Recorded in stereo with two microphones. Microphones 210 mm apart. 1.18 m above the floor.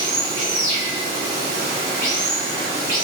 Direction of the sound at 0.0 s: 35° left (ahead or behind).